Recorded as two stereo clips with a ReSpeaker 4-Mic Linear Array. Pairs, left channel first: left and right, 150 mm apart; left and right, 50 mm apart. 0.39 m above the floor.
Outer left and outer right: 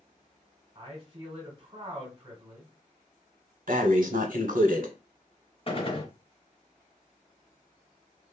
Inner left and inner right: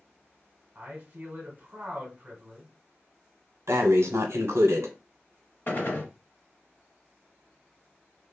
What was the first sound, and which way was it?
A man speaking, 35° right (ahead or behind).